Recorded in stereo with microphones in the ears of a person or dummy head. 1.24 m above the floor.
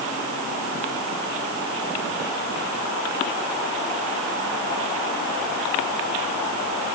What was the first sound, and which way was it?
Only background noise.